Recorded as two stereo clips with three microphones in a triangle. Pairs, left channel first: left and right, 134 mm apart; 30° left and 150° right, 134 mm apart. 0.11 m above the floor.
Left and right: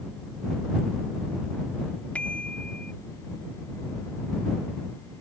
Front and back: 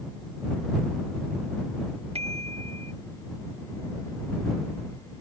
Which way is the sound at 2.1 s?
170° left.